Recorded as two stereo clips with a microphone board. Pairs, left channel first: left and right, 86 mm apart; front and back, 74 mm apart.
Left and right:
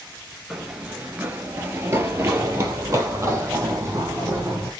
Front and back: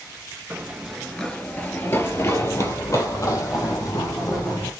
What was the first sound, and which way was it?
Running footsteps, 165° right.